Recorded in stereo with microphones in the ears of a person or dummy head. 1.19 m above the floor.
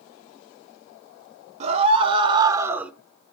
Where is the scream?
30° right (ahead or behind), 1.5 m; by 2.9 s centre (ahead or behind), 0.8 m.